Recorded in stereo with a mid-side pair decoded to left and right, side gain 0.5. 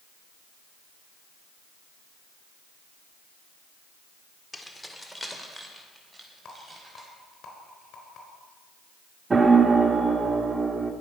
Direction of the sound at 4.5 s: 15° left.